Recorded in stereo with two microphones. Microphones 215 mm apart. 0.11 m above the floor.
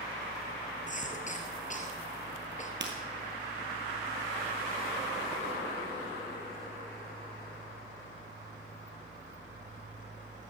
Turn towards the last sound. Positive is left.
turn(degrees=-55)  # may be behind; listen again after turning